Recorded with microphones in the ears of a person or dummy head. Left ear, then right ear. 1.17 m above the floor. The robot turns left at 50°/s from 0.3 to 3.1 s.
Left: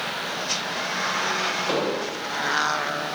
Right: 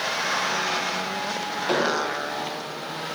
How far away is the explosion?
About 1.2 m.